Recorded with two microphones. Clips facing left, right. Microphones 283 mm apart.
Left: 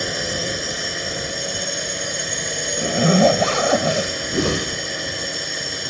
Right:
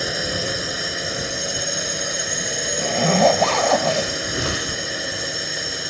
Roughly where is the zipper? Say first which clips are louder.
Left 3 dB; centre.